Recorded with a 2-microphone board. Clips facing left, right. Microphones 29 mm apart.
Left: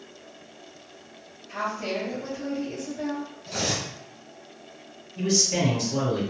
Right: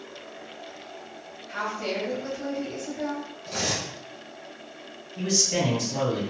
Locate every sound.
1.5 s a woman speaking: 30° right (ahead or behind), 1.7 m
3.5 s cutlery clinking: centre (ahead or behind), 1.5 m
5.2 s a man speaking: 5° right (ahead or behind), 1.8 m